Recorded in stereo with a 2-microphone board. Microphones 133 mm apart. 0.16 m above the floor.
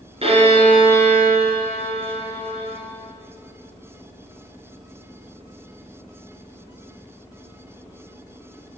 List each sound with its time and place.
0.2 s a violin: 50° right (ahead or behind), 1.4 m